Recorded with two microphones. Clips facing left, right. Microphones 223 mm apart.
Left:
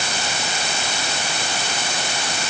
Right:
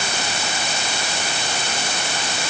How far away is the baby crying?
No baby crying in this recording.